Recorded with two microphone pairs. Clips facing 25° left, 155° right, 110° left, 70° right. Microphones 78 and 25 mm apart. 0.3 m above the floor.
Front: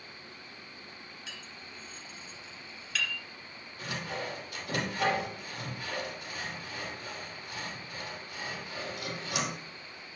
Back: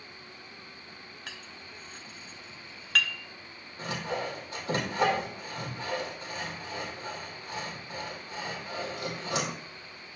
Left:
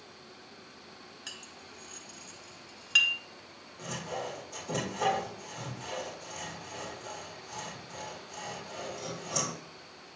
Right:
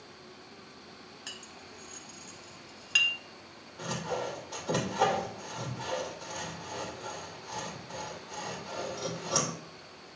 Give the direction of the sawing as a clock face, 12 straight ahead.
3 o'clock.